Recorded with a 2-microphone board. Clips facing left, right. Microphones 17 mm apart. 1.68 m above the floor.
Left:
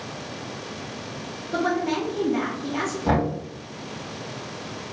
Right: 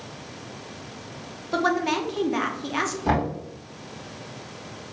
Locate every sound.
1.5 s a woman speaking: 35° right (ahead or behind), 0.7 m
3.0 s knocking: 10° right (ahead or behind), 1.7 m